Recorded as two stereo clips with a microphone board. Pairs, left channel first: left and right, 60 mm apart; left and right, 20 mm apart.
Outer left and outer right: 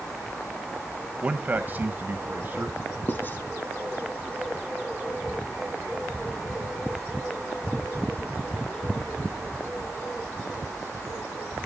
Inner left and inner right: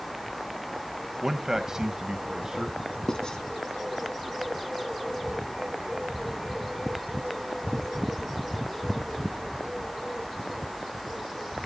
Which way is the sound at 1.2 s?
20° right (ahead or behind).